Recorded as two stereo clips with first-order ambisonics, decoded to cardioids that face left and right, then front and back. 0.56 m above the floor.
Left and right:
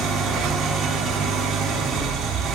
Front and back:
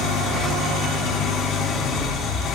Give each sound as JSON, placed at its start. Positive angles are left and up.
{"t": 0.0, "sound": "an engine running", "azimuth_deg": -45, "distance_m": 4.5}